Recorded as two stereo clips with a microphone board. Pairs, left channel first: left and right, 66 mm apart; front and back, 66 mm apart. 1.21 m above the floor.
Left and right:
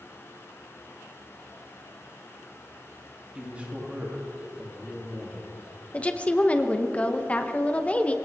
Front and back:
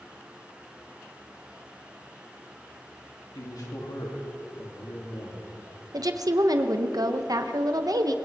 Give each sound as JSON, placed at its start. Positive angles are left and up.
{"t": 3.4, "sound": "a man speaking", "azimuth_deg": -20, "distance_m": 2.5}
{"t": 5.9, "sound": "a woman speaking", "azimuth_deg": 160, "distance_m": 0.8}